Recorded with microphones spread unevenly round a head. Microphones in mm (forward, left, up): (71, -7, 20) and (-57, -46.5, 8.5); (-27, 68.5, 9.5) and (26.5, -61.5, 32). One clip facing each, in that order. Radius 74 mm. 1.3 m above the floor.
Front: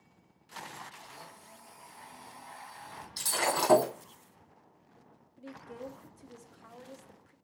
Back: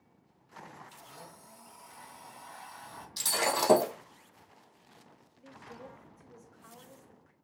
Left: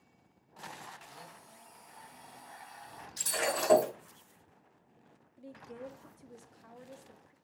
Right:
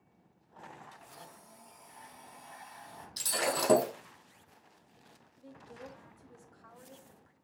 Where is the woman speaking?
65° left, 0.6 m.